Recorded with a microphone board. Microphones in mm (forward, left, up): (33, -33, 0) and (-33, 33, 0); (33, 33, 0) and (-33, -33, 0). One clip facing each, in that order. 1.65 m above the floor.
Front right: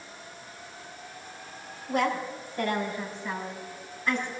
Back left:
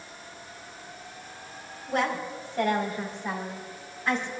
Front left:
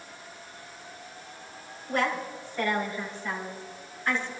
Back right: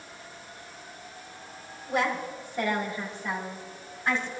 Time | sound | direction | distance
1.9 | a woman speaking | 145° left | 5.5 m